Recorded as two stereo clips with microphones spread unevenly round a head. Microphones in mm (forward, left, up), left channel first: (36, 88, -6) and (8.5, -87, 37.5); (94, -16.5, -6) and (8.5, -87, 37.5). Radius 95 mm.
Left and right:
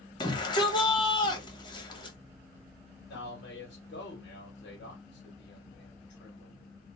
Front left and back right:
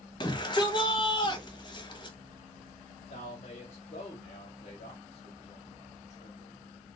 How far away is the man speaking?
About 1.3 m.